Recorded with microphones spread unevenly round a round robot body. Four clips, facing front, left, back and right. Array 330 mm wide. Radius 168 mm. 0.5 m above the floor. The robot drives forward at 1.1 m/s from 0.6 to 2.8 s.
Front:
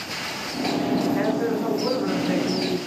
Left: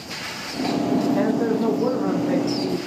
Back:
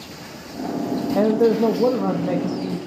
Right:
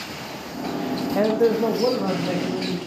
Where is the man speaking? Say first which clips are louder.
Right 2 dB, back 6 dB; 160° right, 2.0 m; by 2.8 s 170° right, 3.5 m.